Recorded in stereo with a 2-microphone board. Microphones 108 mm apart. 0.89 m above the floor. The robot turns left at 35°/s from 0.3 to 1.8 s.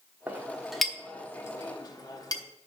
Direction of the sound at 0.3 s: 15° right (ahead or behind).